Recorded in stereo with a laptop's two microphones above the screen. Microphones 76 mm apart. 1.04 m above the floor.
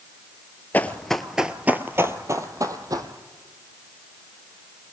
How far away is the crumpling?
I don't hear crumpling.